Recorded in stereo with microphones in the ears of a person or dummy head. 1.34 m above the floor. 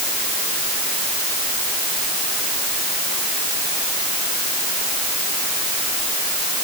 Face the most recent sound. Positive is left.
No sound to turn to.